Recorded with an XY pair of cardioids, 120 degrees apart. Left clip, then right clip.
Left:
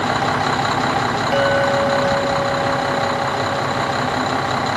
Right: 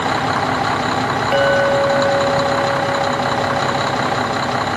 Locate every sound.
1.3 s a clink: 15° right